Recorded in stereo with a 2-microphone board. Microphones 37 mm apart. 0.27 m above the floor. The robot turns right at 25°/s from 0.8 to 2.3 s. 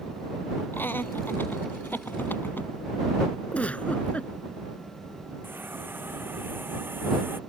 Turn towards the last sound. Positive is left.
turn(degrees=-80)